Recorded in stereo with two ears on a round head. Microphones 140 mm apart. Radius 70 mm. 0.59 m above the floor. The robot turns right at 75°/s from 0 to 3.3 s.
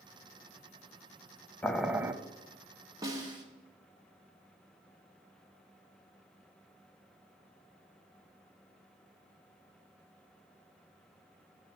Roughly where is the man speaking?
No man speaking in this recording.